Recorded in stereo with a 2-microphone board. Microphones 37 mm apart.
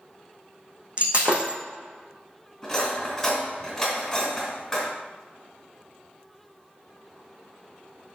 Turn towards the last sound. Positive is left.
turn(degrees=10)  # may be behind; listen again after turning